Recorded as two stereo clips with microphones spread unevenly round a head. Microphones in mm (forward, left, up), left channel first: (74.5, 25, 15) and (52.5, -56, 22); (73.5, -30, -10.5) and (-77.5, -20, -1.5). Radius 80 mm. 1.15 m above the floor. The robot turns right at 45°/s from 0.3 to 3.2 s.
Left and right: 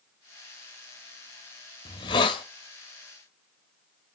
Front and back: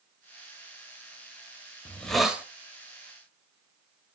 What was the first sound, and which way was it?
A hiss, 75° left.